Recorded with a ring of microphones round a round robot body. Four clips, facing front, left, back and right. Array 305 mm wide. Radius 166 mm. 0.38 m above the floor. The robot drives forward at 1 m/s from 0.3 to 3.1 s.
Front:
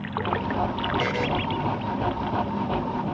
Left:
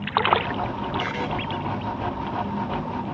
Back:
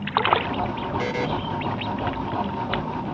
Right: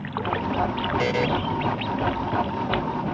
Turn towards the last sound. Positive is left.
turn(degrees=-145)